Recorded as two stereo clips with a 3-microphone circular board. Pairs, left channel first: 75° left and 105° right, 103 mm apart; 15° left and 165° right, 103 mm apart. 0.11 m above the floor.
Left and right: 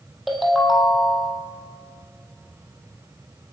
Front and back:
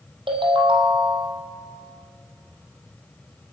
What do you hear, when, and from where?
0.3 s a ringtone: 165° left, 3 m